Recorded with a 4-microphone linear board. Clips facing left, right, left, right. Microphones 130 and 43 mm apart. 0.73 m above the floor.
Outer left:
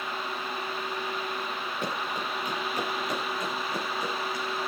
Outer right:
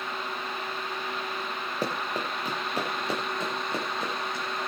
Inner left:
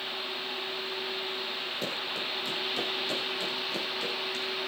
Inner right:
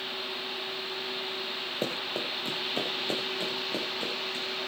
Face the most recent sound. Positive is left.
turn(degrees=-25)  # may be behind; listen again after turning